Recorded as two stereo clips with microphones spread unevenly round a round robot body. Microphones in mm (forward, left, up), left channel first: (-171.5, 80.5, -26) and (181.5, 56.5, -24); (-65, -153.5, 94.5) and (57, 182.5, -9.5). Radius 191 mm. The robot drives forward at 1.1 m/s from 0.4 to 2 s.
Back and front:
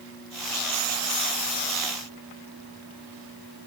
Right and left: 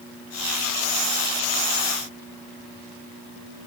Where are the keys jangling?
No keys jangling in this recording.